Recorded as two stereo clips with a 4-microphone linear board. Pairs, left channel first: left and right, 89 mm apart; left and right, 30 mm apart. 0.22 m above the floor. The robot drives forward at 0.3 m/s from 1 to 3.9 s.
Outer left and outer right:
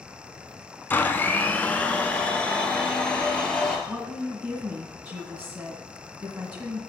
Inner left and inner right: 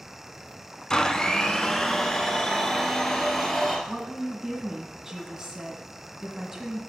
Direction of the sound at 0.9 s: 20° left (ahead or behind).